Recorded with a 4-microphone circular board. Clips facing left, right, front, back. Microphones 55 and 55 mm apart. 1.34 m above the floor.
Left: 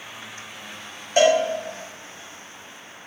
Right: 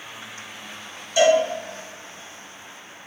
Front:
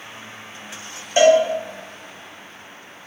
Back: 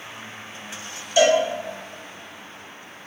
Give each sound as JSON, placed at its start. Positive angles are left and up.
{"t": 1.2, "sound": "a cowbell", "azimuth_deg": 50, "distance_m": 0.7}